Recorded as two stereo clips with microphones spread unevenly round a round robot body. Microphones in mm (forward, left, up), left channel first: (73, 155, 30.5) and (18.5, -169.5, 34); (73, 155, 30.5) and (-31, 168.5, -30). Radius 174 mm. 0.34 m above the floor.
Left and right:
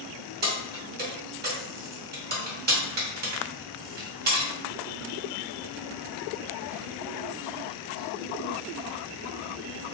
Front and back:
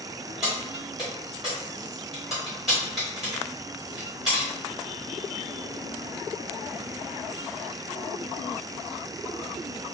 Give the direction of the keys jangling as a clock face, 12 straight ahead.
5 o'clock.